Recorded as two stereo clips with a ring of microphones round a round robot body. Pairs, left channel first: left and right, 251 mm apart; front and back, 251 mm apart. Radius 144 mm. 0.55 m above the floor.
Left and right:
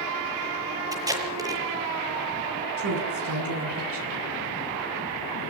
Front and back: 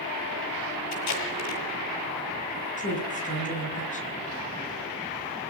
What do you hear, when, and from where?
0.9 s tape being pulled: 15° right, 8 m
2.8 s a woman speaking: 60° right, 8 m